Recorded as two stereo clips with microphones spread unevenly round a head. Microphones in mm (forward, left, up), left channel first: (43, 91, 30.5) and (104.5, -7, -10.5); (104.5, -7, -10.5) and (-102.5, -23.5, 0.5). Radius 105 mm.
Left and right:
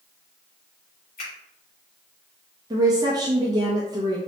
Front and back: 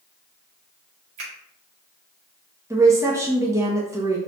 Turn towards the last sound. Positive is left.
turn(degrees=-100)